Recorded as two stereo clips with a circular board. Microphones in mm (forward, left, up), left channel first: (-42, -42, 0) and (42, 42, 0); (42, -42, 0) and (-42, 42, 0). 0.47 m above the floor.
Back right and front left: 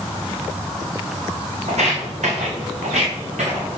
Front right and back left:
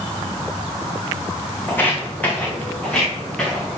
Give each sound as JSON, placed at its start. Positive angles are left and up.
{"t": 1.7, "sound": "footsteps", "azimuth_deg": 25, "distance_m": 1.9}